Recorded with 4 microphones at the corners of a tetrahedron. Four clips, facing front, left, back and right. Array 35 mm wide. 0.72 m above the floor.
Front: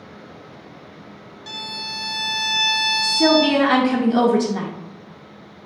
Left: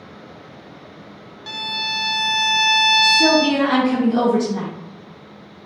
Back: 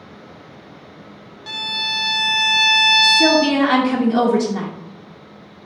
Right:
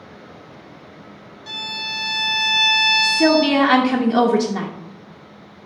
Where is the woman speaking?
80° right, 0.5 m.